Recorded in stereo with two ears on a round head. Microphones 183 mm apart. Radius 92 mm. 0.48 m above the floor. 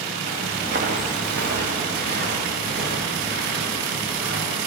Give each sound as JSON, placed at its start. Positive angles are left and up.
{"t": 0.3, "sound": "footsteps", "side_deg": -40, "distance_m": 1.7}